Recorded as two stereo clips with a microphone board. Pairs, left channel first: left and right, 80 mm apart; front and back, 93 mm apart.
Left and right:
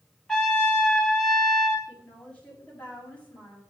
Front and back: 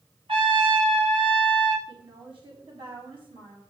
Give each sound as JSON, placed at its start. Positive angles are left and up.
{"t": 0.3, "sound": "a trumpet", "azimuth_deg": 175, "distance_m": 3.0}
{"t": 1.9, "sound": "a woman speaking", "azimuth_deg": 165, "distance_m": 6.0}